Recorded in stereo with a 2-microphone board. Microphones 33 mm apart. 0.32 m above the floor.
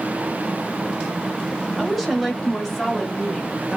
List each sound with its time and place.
1.8 s a woman speaking: 5° right (ahead or behind), 1.2 m; by 3.8 s 15° left (ahead or behind), 0.9 m